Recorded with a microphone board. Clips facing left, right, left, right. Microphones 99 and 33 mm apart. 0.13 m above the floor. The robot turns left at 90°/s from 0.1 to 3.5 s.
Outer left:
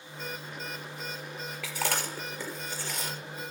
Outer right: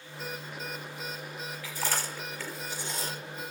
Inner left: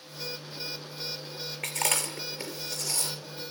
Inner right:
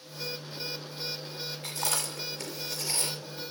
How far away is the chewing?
About 4 m.